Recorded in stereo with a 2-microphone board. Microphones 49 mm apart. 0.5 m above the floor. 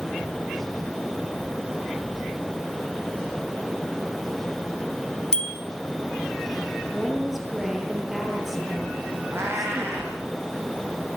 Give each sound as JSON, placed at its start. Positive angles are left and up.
{"t": 5.3, "sound": "a bicycle bell", "side_deg": 15, "distance_m": 2.5}
{"t": 6.9, "sound": "a woman speaking", "side_deg": -5, "distance_m": 9.5}
{"t": 9.3, "sound": "a cat meowing", "side_deg": -60, "distance_m": 8.0}